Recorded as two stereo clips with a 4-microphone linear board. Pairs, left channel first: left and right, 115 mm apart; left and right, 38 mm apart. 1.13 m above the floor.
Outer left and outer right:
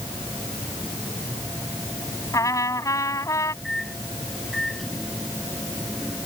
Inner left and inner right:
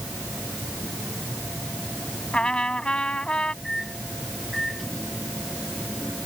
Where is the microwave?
Centre (ahead or behind).